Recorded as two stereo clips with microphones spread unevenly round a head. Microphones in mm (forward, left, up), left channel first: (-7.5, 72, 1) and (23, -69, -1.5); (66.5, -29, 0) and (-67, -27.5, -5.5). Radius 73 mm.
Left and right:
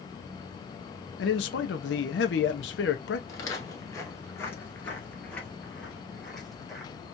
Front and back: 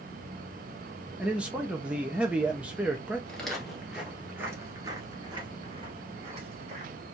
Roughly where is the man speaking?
Left.